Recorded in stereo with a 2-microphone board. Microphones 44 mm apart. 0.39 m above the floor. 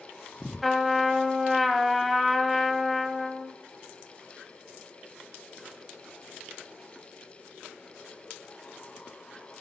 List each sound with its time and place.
0.6 s a trumpet: centre (ahead or behind), 0.6 m